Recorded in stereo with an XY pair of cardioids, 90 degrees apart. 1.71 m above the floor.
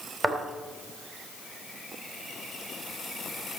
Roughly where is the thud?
Ahead right.